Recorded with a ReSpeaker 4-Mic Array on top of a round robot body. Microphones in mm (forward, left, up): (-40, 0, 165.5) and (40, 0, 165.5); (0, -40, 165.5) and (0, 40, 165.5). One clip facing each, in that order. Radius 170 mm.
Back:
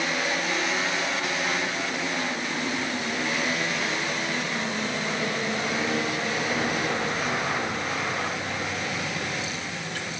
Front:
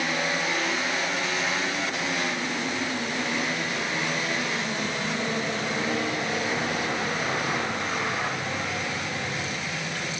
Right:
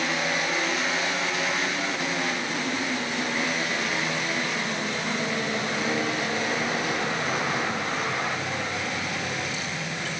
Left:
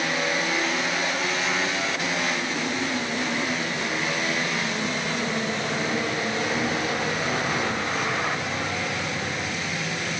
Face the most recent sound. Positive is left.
No sound to turn to.